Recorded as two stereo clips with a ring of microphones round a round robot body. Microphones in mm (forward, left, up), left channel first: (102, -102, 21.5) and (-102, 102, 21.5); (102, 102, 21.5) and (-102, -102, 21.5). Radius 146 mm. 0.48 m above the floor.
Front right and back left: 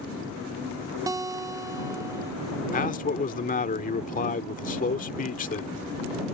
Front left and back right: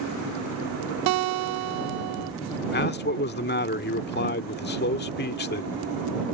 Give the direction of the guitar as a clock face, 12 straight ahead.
5 o'clock.